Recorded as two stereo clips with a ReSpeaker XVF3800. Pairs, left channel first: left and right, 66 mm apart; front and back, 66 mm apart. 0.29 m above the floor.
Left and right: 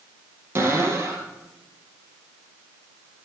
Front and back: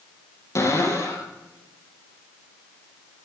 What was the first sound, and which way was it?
A cupboard door, 40° right.